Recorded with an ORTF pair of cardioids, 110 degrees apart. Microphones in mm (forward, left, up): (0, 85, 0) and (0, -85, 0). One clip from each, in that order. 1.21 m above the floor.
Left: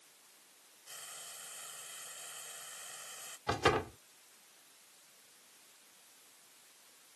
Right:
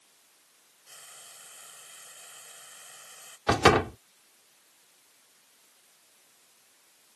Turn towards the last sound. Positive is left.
turn(degrees=-60)